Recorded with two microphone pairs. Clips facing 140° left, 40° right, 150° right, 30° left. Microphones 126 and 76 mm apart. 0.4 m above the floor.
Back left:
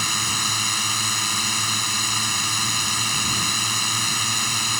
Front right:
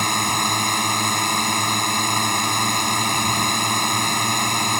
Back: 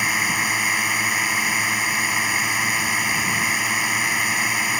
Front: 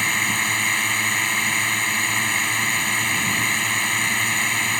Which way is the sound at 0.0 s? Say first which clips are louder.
Front right 7 dB, back 1 dB; 65° right.